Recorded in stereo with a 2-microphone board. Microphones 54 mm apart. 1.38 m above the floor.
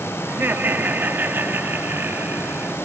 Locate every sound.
0.3 s laughter: 40° right (ahead or behind)